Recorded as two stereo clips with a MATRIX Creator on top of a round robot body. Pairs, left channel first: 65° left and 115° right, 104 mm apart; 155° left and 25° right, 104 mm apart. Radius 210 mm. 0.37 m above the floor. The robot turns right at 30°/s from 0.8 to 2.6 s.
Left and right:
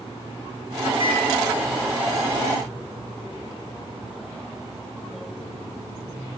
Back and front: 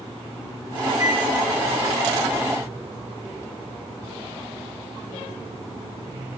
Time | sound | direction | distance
1.0 | a microwave | 80° right | 2 m